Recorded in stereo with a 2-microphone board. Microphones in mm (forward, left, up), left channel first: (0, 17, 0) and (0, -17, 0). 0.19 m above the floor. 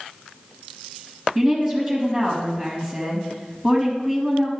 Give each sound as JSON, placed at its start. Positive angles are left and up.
{"t": 1.4, "sound": "a woman speaking", "side_deg": -10, "distance_m": 4.5}